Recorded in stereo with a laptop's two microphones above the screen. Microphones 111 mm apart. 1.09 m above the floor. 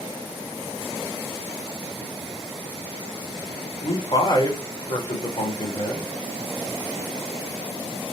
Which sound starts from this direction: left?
A man speaking, at 3.8 s.